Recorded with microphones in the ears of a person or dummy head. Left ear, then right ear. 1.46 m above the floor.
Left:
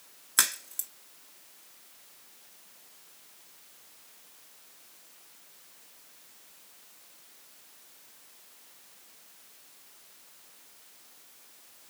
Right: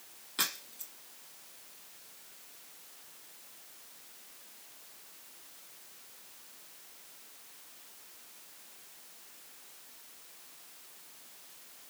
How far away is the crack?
About 1.7 m.